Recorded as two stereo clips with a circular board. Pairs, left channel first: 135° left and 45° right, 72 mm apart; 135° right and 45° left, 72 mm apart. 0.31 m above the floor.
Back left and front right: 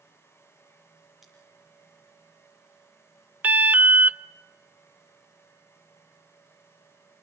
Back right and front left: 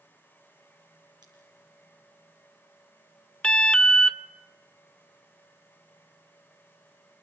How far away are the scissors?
About 8 m.